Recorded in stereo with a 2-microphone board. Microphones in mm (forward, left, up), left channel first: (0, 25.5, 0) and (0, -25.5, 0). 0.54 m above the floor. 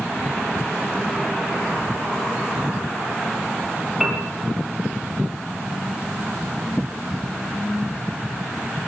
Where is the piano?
10° right (ahead or behind), 7 m.